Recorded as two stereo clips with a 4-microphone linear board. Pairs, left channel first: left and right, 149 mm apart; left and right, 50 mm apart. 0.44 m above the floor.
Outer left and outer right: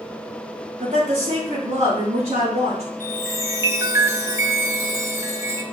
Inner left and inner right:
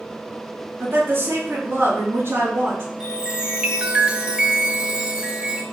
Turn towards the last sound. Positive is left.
turn(degrees=-20)  # may be behind; listen again after turning